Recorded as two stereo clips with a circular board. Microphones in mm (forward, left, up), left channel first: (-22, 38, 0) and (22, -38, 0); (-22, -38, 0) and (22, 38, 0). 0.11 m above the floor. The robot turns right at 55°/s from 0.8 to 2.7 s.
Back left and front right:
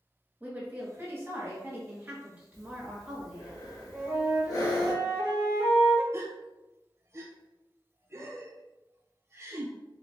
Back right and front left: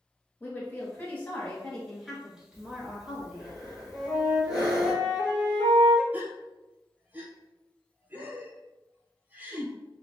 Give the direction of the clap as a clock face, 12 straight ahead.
I don't hear a clap.